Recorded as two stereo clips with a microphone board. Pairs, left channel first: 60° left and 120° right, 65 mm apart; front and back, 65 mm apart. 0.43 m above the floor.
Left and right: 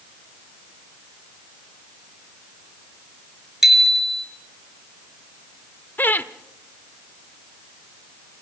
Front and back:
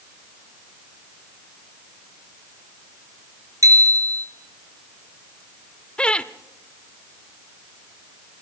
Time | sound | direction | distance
3.6 | a bicycle bell | 155° left | 5 m
6.0 | laughter | 55° left | 0.9 m